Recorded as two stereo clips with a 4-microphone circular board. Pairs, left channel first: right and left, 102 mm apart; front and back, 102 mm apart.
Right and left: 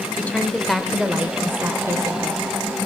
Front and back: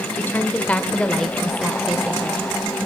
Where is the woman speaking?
35° right, 1.3 m; by 2.4 s 115° left, 1.6 m.